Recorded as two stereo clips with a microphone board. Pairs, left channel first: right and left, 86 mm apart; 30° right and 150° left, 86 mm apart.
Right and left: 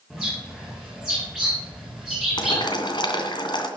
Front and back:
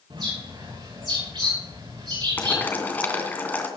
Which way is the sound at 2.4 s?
95° right.